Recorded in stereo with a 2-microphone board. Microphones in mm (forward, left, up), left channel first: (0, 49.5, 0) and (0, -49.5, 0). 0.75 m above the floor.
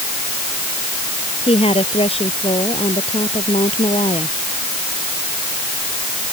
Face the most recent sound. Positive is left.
turn(degrees=70)  # may be behind; listen again after turning